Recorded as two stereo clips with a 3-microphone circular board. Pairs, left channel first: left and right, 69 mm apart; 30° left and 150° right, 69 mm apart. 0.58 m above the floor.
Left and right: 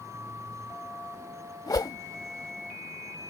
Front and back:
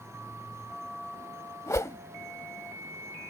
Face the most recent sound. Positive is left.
turn(degrees=70)